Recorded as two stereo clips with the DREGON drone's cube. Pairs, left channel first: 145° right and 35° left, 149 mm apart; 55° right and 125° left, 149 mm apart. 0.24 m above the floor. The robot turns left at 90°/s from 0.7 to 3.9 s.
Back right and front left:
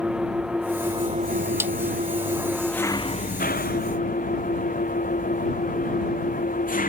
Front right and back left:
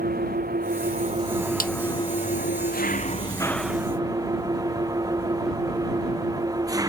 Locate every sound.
0.0 s an engine running: 120° left; by 6.9 s 170° right
1.6 s a snare drum: 40° right; by 1.7 s 50° right